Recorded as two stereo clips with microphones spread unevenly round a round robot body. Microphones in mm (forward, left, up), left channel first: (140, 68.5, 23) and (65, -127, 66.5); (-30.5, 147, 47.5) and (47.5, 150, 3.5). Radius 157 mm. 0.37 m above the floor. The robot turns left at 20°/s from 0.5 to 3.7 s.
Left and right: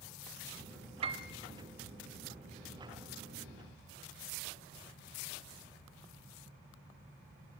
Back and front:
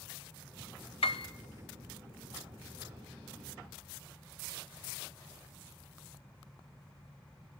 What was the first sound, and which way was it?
A piano, 175° left.